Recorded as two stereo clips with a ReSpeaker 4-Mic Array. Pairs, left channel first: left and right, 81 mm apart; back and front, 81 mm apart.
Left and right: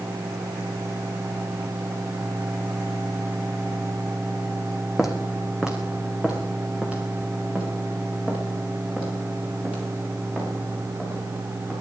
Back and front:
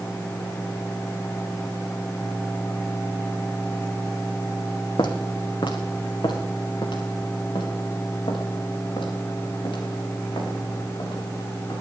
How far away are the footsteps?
About 1.5 m.